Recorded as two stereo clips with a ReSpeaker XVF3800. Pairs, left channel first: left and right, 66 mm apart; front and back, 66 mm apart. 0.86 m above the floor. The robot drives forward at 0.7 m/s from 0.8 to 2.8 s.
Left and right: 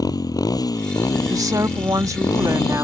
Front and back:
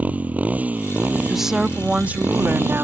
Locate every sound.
0.0 s a motorcycle: 110° left; by 2.8 s 120° left
1.3 s a woman speaking: 90° right; by 2.8 s 130° right